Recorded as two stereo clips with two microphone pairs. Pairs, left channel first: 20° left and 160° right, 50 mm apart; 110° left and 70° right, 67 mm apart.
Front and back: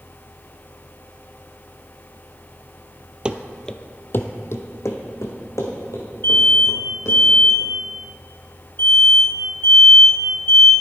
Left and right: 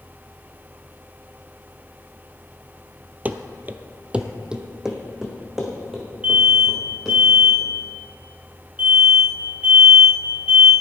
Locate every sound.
3.2 s running footsteps: 110° right, 0.6 m; by 7.2 s 15° left, 3 m
6.2 s an alarm: 5° right, 3 m